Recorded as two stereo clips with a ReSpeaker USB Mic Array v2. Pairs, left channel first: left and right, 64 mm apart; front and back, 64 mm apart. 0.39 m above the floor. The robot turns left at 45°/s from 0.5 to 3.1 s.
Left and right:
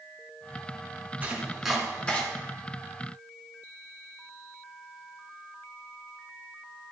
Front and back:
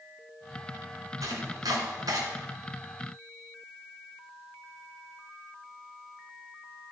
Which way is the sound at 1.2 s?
160° right.